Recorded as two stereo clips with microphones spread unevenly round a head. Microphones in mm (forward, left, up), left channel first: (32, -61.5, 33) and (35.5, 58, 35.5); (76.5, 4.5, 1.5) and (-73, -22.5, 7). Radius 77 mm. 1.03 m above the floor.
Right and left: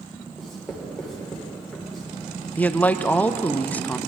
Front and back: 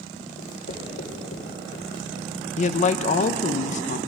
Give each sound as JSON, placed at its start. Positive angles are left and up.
{"t": 0.4, "sound": "writing", "azimuth_deg": -5, "distance_m": 3.0}
{"t": 2.6, "sound": "a man speaking", "azimuth_deg": -15, "distance_m": 0.6}